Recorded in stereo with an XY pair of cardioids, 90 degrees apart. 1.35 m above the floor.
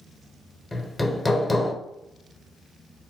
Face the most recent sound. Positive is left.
turn(degrees=15)